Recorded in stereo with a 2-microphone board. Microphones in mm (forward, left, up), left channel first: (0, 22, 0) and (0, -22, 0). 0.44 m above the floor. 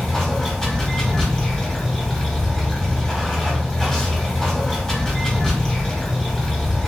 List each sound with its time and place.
0.0 s running water: 10° left (ahead or behind), 1.9 m